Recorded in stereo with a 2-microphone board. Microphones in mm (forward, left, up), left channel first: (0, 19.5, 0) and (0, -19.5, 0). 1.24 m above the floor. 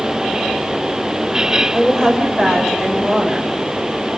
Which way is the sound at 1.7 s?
5° left (ahead or behind).